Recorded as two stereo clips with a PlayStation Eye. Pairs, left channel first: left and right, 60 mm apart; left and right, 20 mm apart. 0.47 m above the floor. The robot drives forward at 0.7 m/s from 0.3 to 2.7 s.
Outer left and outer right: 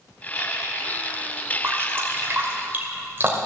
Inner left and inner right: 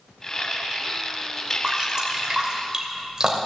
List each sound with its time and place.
1.6 s dripping: 45° right (ahead or behind), 2 m; by 3.4 s 35° right (ahead or behind), 2.5 m